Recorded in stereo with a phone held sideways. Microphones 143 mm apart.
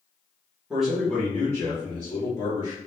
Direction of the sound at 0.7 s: 5° right (ahead or behind).